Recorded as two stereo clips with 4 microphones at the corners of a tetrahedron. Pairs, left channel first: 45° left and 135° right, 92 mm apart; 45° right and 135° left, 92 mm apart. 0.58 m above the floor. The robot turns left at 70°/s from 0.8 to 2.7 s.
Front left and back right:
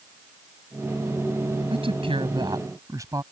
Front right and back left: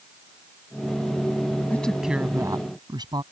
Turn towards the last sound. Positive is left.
turn(degrees=175)